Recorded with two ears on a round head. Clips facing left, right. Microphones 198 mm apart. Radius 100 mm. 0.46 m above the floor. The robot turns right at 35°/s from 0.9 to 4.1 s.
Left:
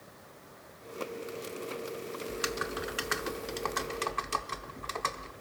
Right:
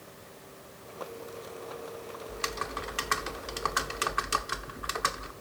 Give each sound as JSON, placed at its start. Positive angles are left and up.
{"t": 2.3, "sound": "typing on a keyboard", "side_deg": 15, "distance_m": 0.7}